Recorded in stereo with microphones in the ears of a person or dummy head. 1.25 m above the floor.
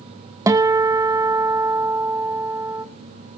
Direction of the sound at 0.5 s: 15° right (ahead or behind).